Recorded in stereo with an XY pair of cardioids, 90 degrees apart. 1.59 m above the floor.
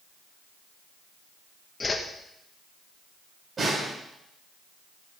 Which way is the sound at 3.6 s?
40° right.